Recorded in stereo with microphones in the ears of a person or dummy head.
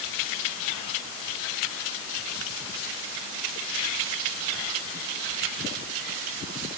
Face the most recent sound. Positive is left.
No sound to turn to.